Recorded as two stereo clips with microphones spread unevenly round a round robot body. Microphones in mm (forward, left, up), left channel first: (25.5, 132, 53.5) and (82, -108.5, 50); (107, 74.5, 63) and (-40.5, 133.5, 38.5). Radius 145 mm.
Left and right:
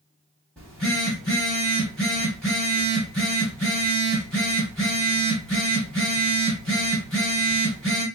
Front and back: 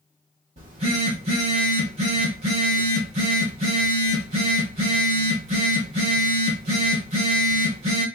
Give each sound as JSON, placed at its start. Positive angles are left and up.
{"t": 0.6, "sound": "a phone buzzing", "azimuth_deg": -175, "distance_m": 0.8}